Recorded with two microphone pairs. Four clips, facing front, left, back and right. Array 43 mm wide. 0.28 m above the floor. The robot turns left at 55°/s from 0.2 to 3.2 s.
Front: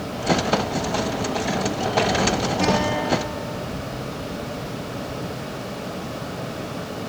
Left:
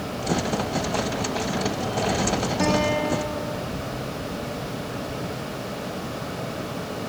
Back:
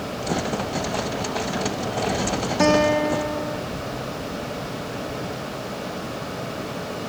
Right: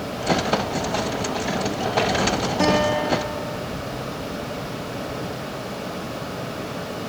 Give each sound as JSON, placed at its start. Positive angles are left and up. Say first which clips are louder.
{"t": 2.6, "sound": "a guitar", "louder": "right 3 dB, back 6 dB", "azimuth_deg": -165, "distance_m": 2.5}